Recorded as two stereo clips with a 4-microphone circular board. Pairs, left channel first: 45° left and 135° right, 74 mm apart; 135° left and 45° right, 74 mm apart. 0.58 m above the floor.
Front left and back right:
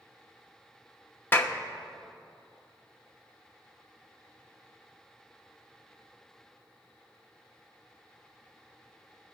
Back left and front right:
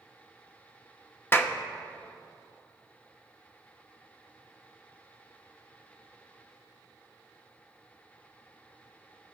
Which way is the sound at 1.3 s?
90° left.